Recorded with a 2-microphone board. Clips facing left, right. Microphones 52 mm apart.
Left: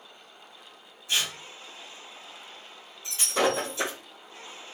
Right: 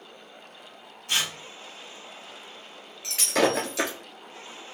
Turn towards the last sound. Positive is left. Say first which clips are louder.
# right 2 dB
turn(degrees=-85)